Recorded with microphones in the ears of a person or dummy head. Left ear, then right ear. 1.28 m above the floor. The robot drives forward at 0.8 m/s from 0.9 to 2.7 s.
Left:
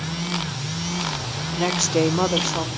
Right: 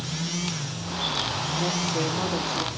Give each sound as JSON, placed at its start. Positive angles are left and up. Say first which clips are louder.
{"t": 1.6, "sound": "a woman speaking", "louder": "left 9 dB", "side_deg": 55, "distance_m": 0.6}